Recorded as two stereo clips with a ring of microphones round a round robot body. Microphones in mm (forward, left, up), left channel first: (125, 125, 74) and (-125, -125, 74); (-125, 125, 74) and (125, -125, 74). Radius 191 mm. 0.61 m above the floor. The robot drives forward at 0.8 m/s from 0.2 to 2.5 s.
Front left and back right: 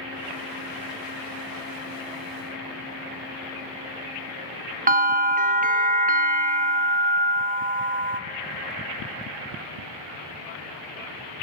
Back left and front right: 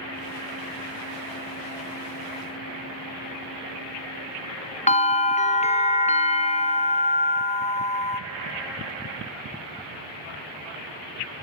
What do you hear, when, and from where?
4.9 s a bell: 175° right, 1.0 m